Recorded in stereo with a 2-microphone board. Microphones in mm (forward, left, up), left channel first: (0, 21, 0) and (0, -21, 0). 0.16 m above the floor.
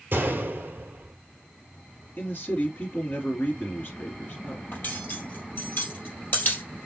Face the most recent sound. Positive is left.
turn(degrees=55)  # may be behind; listen again after turning